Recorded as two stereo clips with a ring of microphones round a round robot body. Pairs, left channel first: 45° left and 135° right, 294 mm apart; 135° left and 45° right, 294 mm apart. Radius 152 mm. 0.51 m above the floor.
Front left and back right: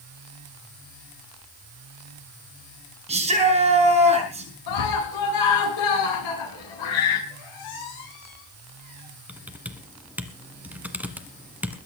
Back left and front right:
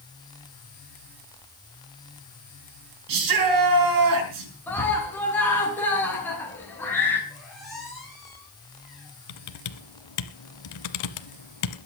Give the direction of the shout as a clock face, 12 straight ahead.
2 o'clock.